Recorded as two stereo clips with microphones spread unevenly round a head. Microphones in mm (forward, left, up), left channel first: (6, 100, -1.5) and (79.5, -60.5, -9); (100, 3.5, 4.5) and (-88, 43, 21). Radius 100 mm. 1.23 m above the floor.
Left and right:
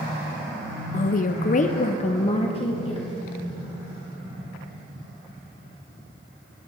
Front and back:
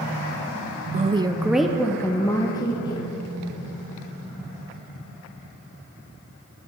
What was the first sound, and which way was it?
A woman speaking, 135° left.